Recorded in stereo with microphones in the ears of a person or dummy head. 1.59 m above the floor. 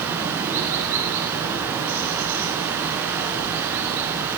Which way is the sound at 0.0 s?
10° right (ahead or behind).